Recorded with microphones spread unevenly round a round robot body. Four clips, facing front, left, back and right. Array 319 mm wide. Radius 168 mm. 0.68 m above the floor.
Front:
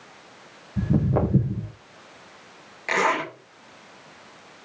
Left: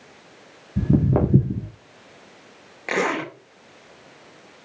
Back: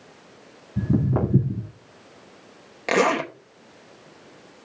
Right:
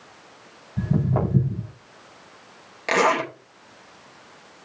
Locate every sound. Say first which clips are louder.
0.8 s footsteps: left 4 dB, even; 105° left, 2.5 m
2.9 s a zipper: right 4 dB, back 3 dB; 170° left, 2 m